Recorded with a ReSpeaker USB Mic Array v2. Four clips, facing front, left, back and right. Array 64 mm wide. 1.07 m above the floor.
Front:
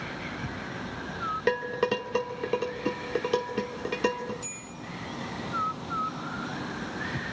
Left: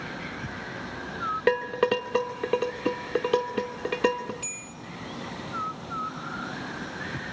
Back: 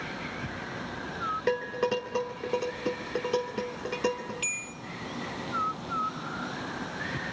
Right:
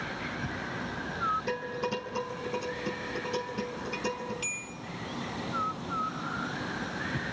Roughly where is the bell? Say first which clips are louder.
Right 2 dB, back 5 dB; behind.